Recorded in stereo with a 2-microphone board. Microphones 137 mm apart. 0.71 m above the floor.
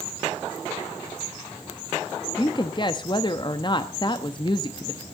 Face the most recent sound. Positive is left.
turn(degrees=35)  # may be behind; listen again after turning